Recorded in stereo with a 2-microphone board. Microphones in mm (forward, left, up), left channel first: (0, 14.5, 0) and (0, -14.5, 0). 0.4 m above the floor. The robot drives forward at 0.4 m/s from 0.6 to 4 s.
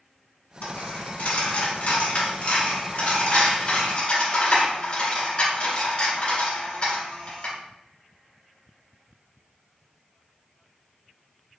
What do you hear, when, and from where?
0.6 s a dropped coin: 75° left (ahead or behind), 1.5 m; by 7.5 s 45° left (ahead or behind), 2 m